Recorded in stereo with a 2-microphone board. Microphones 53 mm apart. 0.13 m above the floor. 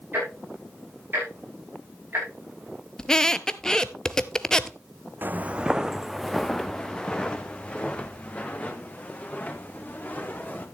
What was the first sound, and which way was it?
Ticking, 40° right (ahead or behind).